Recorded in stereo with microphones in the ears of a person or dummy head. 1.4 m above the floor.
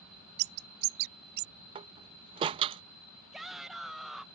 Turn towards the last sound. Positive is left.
turn(degrees=0)  # may be behind; listen again after turning